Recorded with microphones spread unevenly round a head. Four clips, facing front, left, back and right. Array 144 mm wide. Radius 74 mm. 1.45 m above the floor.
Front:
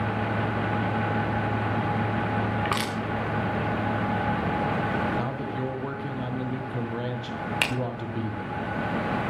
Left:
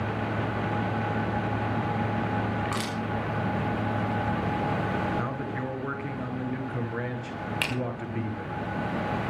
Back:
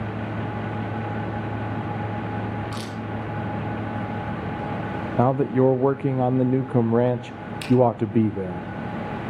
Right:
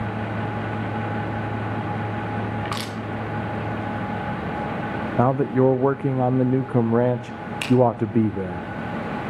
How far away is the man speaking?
About 0.8 m.